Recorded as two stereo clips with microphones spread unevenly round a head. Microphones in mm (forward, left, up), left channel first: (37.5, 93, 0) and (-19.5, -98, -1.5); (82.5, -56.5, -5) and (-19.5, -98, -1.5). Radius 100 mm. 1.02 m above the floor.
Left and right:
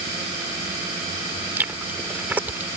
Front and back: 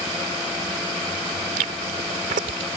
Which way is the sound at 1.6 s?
170° left.